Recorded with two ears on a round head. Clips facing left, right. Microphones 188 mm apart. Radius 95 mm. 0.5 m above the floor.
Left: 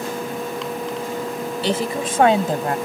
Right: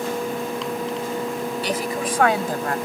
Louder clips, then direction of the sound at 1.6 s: Left 5 dB; 25° left (ahead or behind).